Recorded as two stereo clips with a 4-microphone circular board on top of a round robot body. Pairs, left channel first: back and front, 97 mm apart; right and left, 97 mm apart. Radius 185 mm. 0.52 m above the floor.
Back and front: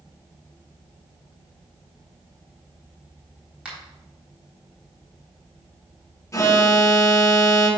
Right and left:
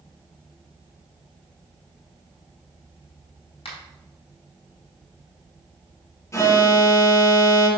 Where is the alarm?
135° right, 2.5 m.